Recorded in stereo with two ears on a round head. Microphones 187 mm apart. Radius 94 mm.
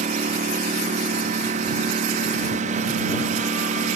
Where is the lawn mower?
35° right (ahead or behind).